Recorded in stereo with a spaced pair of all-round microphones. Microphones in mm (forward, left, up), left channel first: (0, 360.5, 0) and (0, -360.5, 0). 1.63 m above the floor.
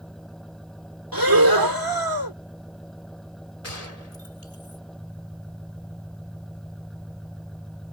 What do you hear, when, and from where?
0.0 s an engine running: centre (ahead or behind)
1.1 s breathing: 30° right (ahead or behind)
3.6 s a gunshot: 55° left (ahead or behind)